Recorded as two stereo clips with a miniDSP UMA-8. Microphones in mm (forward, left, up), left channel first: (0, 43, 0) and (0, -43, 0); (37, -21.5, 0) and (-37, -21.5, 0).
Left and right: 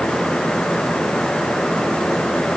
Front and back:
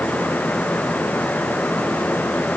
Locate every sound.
Only background noise.